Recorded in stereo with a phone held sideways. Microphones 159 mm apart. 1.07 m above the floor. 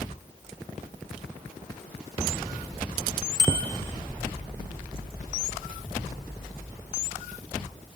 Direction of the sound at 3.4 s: 30° right (ahead or behind).